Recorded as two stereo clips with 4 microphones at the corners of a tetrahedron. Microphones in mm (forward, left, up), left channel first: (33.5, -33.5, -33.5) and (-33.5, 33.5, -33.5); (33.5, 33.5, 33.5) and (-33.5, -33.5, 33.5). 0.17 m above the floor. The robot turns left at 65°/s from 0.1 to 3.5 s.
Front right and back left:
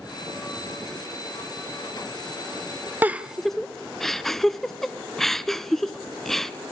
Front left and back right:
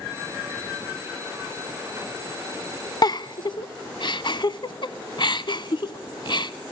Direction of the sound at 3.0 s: 70° left.